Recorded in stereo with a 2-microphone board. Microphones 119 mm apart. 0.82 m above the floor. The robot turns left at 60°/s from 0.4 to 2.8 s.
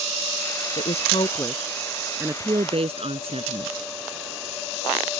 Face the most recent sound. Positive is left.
turn(degrees=-55)  # may be behind; listen again after turning